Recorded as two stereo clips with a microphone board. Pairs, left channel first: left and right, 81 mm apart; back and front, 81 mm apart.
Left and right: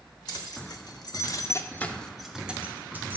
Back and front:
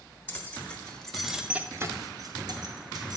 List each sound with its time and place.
0.3 s keys jangling: 115° left, 1.0 m; by 3.2 s 30° right, 1.0 m